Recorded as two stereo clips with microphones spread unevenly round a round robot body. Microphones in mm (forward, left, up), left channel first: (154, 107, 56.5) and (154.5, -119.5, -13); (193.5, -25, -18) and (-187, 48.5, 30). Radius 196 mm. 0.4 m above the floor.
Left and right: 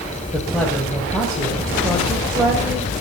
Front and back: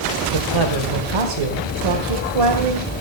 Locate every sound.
0.3 s a man speaking: 170° right, 1.9 m